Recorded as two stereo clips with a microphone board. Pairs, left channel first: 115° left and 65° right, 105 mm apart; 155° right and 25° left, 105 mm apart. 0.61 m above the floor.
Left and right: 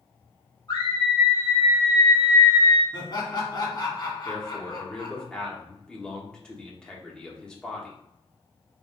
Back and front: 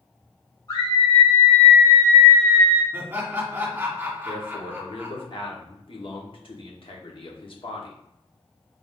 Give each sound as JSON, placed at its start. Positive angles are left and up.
{"t": 0.7, "sound": "a scream", "azimuth_deg": 165, "distance_m": 2.0}
{"t": 2.9, "sound": "laughter", "azimuth_deg": 90, "distance_m": 1.5}
{"t": 4.2, "sound": "a man speaking", "azimuth_deg": -165, "distance_m": 1.0}